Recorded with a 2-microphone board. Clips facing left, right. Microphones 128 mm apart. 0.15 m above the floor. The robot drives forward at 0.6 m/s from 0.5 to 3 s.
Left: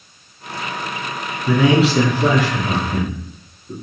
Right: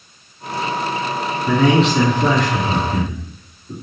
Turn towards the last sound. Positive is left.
turn(degrees=5)  # may be behind; listen again after turning